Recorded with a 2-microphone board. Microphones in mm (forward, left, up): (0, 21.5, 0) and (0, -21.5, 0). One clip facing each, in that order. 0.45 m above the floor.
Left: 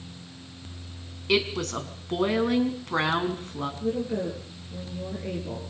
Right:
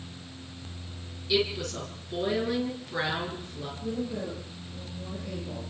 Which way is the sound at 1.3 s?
75° left (ahead or behind).